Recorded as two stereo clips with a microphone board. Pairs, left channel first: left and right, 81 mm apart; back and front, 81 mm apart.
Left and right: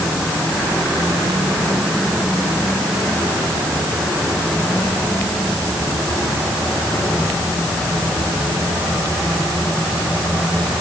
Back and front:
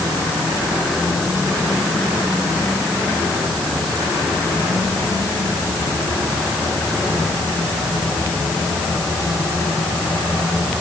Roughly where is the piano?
No piano in this recording.